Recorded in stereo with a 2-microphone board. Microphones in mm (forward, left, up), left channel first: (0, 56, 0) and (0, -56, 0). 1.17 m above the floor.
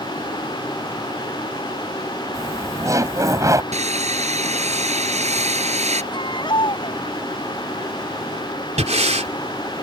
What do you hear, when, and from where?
2.3 s laughter: 30° right (ahead or behind)
3.7 s sawing: 85° right
6.1 s a baby crying: 45° left (ahead or behind)
8.8 s breathing: 85° right